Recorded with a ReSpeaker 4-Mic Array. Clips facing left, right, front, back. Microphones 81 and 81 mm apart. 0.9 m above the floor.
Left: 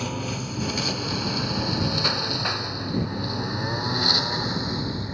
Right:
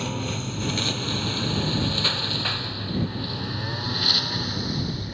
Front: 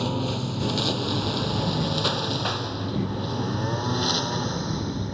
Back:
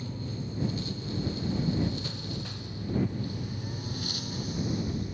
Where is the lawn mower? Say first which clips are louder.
Even, front 11 dB; straight ahead; by 5.2 s 25° left.